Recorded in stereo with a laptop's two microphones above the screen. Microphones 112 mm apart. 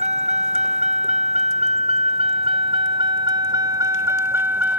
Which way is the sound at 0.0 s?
85° right.